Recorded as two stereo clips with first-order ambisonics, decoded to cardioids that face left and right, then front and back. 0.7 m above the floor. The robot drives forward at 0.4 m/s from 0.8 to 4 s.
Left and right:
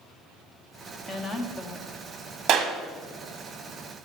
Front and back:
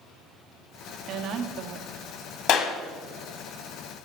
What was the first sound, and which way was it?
A woman speaking, 155° left.